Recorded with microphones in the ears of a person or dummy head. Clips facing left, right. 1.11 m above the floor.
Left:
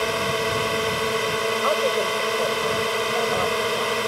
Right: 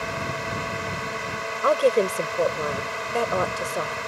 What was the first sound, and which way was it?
A drone, 50° left (ahead or behind).